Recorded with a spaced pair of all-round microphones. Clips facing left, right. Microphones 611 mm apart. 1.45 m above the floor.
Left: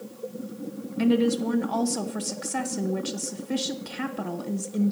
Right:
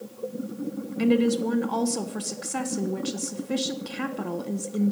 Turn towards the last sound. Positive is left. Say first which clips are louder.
# even
turn(degrees=5)  # may be behind; listen again after turning